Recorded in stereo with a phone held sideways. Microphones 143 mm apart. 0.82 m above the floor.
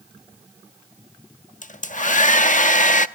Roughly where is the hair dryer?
Left.